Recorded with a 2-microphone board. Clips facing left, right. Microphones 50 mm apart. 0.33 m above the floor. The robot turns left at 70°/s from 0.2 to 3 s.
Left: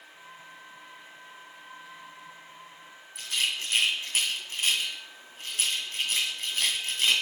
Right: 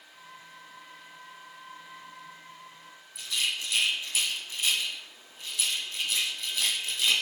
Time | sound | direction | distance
3.1 | a rattle | 55° left (ahead or behind) | 1.6 m